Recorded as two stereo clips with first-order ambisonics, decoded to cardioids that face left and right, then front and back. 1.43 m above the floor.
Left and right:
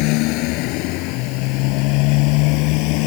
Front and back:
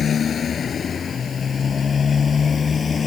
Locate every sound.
0.0 s a motorcycle: 65° left; by 3.1 s 70° left